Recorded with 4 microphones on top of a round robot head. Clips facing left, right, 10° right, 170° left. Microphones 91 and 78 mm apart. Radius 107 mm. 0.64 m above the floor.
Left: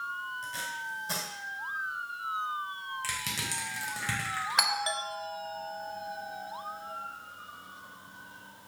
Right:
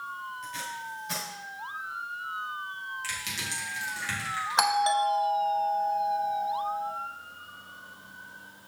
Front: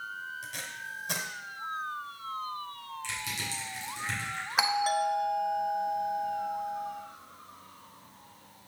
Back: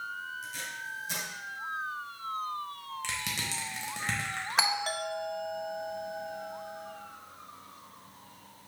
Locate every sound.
0.4 s tape being pulled: 30° left, 1.6 m
3.0 s crushing: 140° left, 2.5 m
4.6 s a doorbell: 85° right, 1.2 m